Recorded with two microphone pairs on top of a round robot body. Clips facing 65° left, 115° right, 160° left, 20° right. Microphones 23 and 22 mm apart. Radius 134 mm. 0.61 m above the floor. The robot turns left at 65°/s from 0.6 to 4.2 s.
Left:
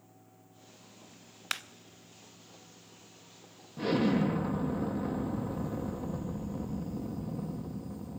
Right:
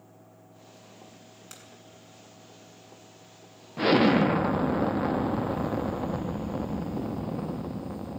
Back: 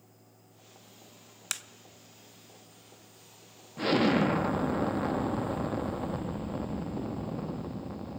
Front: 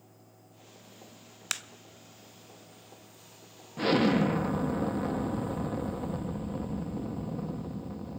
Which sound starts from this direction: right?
An explosion, at 3.8 s.